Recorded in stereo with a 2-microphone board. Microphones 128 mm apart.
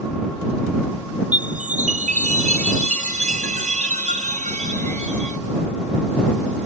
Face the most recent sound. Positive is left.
turn(degrees=-80)